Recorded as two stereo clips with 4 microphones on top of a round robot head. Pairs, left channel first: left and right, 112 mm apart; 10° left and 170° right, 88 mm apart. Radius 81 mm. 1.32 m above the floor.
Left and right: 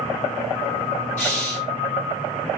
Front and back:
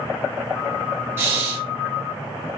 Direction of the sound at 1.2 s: 130° left.